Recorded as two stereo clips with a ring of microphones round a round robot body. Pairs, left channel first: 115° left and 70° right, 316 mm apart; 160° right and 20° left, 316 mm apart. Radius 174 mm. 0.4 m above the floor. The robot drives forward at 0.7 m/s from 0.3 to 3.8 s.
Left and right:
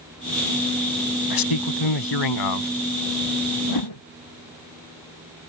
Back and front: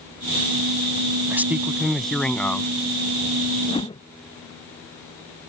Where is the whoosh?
125° left; by 4.0 s 130° left.